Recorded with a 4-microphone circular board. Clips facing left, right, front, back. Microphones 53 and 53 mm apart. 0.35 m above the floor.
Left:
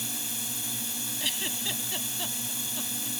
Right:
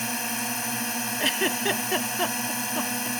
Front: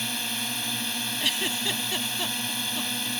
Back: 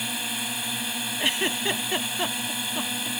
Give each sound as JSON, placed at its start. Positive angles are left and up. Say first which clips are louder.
{"t": 0.0, "sound": "a drone", "louder": "right 9 dB, back 1 dB", "azimuth_deg": -100}
{"t": 1.2, "sound": "a giggle", "louder": "right 9 dB, back 4 dB", "azimuth_deg": -120}